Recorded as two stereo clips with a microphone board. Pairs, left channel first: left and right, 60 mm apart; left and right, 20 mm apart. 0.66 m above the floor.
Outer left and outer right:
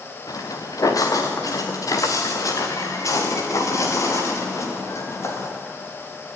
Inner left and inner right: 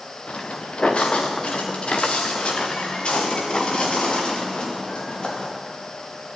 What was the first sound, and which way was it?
Footsteps, 80° left.